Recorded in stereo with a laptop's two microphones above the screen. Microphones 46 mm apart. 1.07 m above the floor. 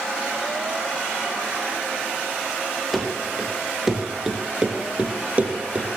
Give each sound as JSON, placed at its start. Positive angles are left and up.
{"t": 2.9, "sound": "running footsteps", "side_deg": 5, "distance_m": 1.4}